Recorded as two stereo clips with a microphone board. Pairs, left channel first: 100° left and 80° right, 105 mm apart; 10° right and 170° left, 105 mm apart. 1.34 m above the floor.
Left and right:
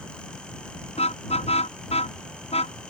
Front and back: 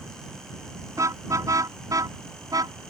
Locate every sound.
1.0 s a car horn: 110° left; by 2.8 s 120° left